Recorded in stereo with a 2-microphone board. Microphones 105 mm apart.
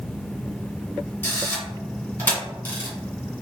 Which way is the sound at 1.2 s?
20° left (ahead or behind).